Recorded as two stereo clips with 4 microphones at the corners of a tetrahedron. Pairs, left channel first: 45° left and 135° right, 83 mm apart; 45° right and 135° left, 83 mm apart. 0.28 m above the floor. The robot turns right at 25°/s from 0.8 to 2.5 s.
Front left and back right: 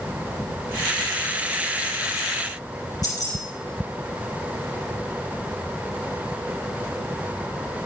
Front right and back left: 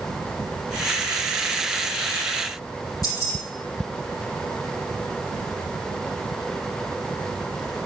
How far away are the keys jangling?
About 4.5 m.